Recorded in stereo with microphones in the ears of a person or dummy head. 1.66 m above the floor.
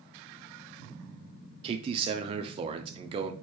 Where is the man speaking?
25° right (ahead or behind), 0.5 m.